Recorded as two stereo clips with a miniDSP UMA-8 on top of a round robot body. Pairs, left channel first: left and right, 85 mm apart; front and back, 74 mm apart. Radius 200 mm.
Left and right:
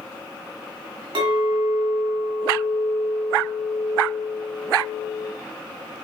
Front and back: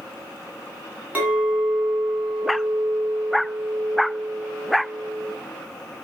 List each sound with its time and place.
1.1 s a clink: 110° right, 3 m